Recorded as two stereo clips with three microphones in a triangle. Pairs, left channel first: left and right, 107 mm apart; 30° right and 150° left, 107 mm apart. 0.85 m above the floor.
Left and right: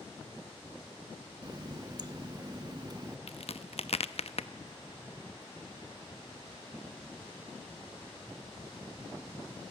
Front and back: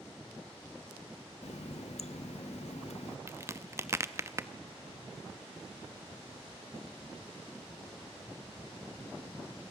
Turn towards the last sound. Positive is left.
turn(degrees=85)